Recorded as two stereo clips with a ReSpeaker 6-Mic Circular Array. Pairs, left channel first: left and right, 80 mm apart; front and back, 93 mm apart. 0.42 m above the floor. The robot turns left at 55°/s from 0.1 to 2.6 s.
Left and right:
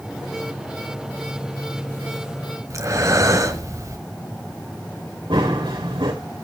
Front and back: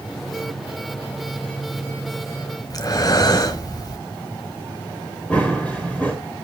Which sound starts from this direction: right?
Running footsteps, at 5.3 s.